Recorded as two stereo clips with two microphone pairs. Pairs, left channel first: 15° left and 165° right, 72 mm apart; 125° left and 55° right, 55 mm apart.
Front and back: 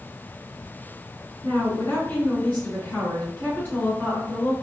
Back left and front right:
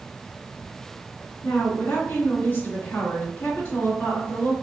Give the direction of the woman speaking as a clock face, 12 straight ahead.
9 o'clock.